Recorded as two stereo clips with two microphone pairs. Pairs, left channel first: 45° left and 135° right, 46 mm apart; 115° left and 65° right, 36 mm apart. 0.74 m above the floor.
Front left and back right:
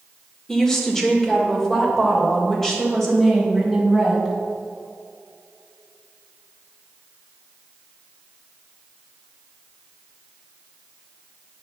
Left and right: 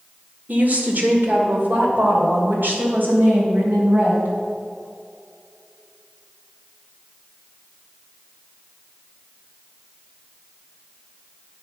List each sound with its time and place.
0.5 s a woman speaking: 35° right, 1.9 m; by 4.3 s 40° right, 4.5 m